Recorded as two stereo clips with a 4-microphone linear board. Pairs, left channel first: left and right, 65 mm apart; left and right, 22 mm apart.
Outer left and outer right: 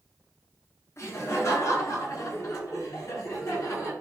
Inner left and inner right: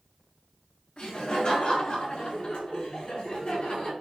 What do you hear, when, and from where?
1.0 s laughter: 50° left (ahead or behind), 2.5 m; by 3.9 s 55° left (ahead or behind), 4.5 m